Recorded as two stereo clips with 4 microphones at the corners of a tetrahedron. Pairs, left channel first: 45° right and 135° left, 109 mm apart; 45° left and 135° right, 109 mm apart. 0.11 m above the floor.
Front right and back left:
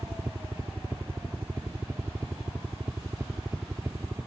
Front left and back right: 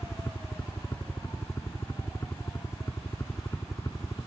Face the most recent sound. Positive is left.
turn(degrees=85)